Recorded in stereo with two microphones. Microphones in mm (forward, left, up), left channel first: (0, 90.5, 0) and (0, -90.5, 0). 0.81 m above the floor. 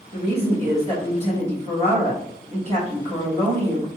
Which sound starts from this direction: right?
A woman speaking, at 0.1 s.